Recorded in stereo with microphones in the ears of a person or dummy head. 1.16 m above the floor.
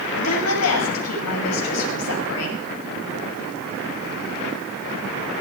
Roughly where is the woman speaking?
Left.